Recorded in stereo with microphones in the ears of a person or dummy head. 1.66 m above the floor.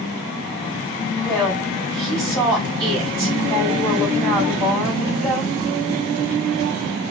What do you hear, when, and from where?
1.2 s a woman speaking: 5° left (ahead or behind), 2.5 m